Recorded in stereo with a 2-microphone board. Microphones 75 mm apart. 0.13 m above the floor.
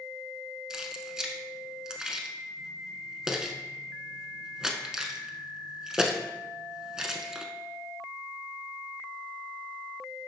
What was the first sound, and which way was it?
Keys jangling, 10° right (ahead or behind).